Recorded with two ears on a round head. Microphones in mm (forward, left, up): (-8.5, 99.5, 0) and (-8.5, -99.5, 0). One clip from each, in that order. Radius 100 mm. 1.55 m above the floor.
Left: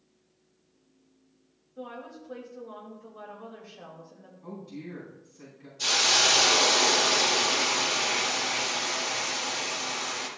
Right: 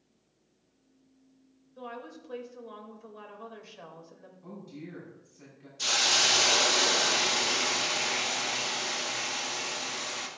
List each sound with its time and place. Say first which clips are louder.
1.8 s a woman speaking: left 1 dB; 55° right (ahead or behind), 2.5 m
4.4 s a woman speaking: left 4 dB; 10° right (ahead or behind), 5 m
5.8 s a hiss: left 2 dB; 20° right (ahead or behind), 1.7 m